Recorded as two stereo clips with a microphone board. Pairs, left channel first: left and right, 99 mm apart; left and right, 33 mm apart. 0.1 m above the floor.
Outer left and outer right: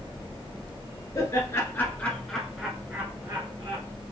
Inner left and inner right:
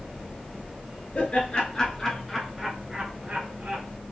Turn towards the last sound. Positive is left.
turn(degrees=-40)  # may be behind; listen again after turning